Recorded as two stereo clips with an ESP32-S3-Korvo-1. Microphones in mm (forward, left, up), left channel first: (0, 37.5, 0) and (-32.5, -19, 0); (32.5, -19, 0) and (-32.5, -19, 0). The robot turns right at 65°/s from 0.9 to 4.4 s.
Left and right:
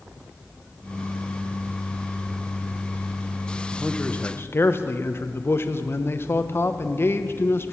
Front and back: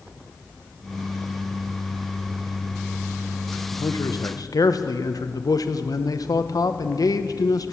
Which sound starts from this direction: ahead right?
A man speaking, at 3.7 s.